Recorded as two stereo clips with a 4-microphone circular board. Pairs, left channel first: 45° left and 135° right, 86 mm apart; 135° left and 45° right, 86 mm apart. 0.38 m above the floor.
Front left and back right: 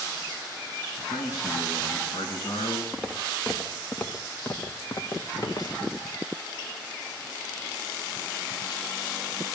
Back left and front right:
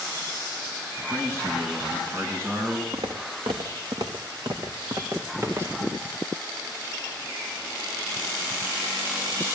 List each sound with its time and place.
1.1 s a man speaking: 10° left, 4 m
2.9 s footsteps: 50° right, 1.5 m; by 5.9 s 10° left, 1.8 m